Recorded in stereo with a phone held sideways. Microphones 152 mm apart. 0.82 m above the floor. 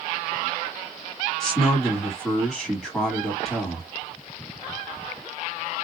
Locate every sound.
1.4 s a man speaking: 5° left (ahead or behind), 1.5 m